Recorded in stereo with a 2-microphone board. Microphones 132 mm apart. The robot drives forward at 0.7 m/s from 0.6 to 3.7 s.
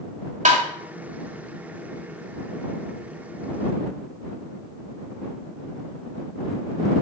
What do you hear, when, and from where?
0.5 s tapping: 70° right (ahead or behind), 1.7 m